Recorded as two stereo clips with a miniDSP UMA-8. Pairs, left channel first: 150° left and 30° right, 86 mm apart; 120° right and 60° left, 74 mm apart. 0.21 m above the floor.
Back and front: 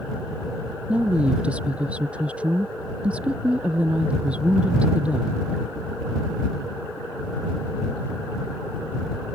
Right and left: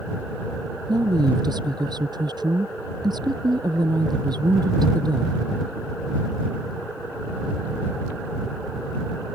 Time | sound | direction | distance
0.9 | a woman speaking | 45° left | ?